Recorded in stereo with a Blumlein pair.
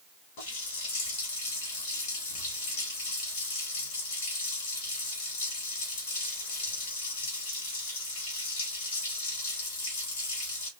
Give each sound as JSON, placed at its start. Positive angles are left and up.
{"t": 0.4, "sound": "a running tap", "azimuth_deg": 50, "distance_m": 3.5}